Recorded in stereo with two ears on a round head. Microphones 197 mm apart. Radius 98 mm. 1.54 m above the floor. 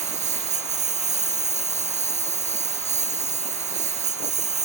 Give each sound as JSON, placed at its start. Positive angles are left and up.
{"t": 0.0, "sound": "a lawn mower", "side_deg": -30}